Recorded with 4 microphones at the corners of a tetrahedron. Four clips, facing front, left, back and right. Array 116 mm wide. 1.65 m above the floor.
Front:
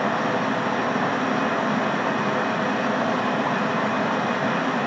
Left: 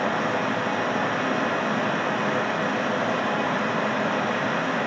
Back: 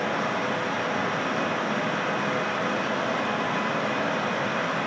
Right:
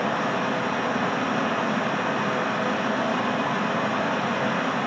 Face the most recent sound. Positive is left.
turn(degrees=-5)